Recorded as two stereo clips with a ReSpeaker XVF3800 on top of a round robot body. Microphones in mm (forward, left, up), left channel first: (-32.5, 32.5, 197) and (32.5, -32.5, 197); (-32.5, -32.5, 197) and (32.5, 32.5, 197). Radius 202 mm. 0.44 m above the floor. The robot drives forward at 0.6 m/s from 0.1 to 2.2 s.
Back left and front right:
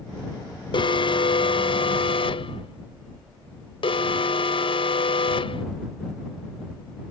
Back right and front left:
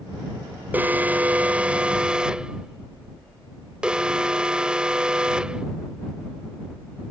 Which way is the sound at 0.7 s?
115° left.